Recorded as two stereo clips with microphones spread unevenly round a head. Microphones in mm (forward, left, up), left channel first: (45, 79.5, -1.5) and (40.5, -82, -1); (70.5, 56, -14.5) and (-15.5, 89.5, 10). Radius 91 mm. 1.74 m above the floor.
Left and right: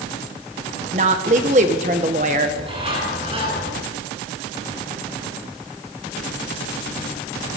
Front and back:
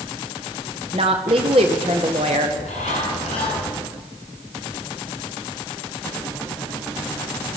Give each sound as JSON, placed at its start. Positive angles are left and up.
{"t": 0.9, "sound": "a woman speaking", "azimuth_deg": -145, "distance_m": 1.9}
{"t": 2.5, "sound": "a bird", "azimuth_deg": -40, "distance_m": 9.5}